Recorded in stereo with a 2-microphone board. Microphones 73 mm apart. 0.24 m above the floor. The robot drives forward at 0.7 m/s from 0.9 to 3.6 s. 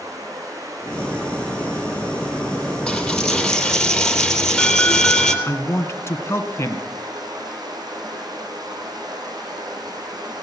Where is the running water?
50° right (ahead or behind), 6 m; by 10.4 s 70° right (ahead or behind), 5 m.